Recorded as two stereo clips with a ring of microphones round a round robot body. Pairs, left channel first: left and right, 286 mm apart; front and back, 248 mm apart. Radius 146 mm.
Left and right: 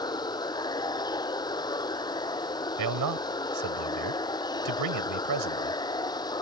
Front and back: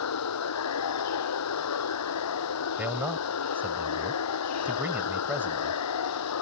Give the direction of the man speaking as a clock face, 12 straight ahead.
3 o'clock.